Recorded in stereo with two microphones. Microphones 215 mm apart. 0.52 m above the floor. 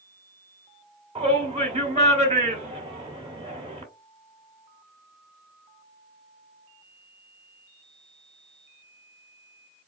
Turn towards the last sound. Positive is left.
turn(degrees=-30)  # may be behind; listen again after turning